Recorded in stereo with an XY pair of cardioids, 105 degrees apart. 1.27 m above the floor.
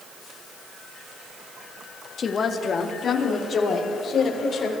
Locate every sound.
2.2 s a woman speaking: 45° left, 1.6 m; by 4.7 s 50° left, 4 m